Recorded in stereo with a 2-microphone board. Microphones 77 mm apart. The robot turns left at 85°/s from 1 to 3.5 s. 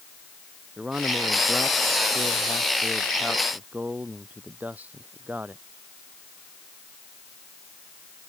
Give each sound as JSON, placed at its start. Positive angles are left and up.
{"t": 0.8, "sound": "a man speaking", "azimuth_deg": -170}